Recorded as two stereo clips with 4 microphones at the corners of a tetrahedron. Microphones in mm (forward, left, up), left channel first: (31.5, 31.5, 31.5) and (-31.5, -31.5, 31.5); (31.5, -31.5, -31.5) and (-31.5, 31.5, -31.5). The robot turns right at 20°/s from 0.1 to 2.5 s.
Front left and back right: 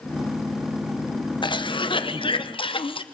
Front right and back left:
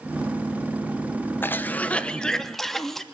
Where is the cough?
20° left, 1.0 m; by 3.0 s 40° left, 1.0 m.